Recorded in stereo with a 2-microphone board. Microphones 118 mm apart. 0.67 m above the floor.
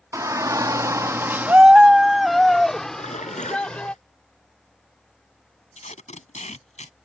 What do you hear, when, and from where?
0.1 s a shout: 25° right (ahead or behind); by 3.9 s 10° left (ahead or behind)
2.9 s a splash: 80° left
5.8 s tape being pulled: 85° left